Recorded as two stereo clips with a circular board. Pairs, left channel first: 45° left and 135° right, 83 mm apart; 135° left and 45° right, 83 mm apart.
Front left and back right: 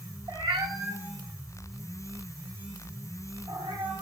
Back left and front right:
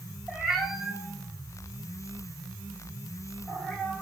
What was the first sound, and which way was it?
A cat meowing, 135° right.